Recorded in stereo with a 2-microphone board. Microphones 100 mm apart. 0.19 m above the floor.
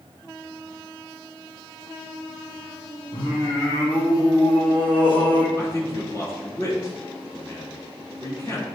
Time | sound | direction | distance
3.1 | singing | 55° left (ahead or behind) | 2.5 m
5.6 | a man speaking | 35° left (ahead or behind) | 2.5 m